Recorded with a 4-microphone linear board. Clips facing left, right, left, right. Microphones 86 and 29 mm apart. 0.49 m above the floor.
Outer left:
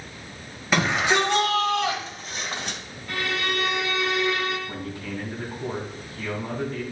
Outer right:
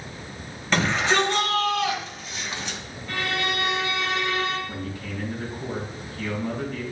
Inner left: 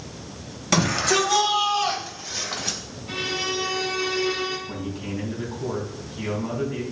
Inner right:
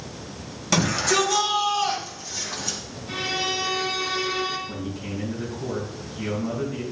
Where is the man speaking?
30° left (ahead or behind), 3.5 m.